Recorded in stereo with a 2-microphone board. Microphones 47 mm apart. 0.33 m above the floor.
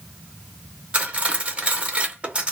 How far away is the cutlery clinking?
About 0.8 m.